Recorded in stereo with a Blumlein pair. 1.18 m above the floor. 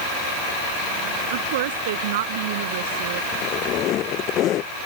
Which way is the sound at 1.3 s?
55° right.